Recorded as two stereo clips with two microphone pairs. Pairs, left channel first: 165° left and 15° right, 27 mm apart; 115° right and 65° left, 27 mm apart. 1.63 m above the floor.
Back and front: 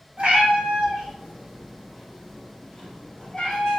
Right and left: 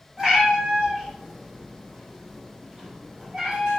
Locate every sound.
0.2 s a cat meowing: straight ahead, 1.2 m; by 3.8 s 120° left, 1.5 m